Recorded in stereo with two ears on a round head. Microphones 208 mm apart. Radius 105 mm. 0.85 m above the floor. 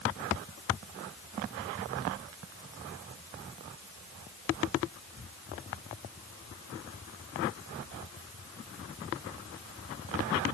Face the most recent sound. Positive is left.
No sound to turn to.